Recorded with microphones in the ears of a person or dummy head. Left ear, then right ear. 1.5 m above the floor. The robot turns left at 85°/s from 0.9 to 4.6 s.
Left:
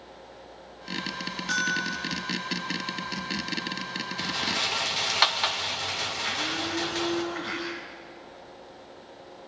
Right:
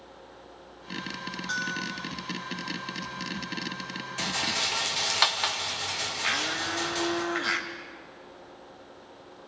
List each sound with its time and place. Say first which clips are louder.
1.5 s a bell: left 5 dB; straight behind, 1.4 m; by 2.2 s 120° left, 1.4 m
4.2 s a rattle: even; 35° right (ahead or behind), 0.8 m; by 7.2 s 5° right (ahead or behind), 0.8 m
6.2 s a blender: right 4 dB; 40° right (ahead or behind), 1.7 m